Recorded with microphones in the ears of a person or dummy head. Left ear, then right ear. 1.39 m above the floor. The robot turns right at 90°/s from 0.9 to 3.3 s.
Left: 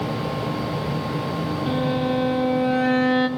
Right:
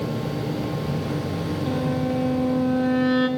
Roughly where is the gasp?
I don't hear a gasp.